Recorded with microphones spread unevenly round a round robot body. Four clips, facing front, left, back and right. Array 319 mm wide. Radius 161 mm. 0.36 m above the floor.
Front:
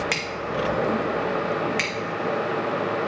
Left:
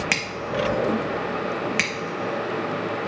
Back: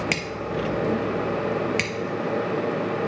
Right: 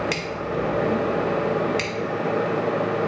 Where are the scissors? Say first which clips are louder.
Right 1 dB, even; 160° left, 0.6 m.